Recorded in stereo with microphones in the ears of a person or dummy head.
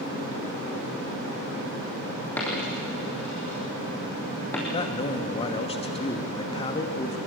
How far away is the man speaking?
About 1.4 m.